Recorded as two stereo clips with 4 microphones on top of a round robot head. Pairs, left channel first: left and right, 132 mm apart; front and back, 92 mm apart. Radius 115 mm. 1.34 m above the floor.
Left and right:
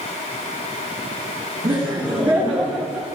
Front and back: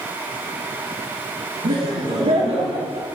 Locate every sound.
1.6 s laughter: 155° right, 3.5 m; by 3.1 s 175° left, 4 m